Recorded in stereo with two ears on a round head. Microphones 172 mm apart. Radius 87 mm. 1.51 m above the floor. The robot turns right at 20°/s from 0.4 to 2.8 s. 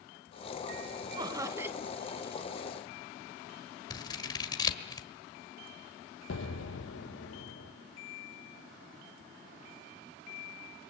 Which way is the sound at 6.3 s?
80° left.